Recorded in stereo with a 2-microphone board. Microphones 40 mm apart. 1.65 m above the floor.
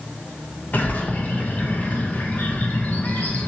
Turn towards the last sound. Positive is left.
turn(degrees=40)  # may be behind; listen again after turning